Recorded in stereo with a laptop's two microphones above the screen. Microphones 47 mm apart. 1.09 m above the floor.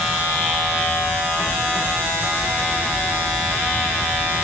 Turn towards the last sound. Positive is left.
No sound to turn to.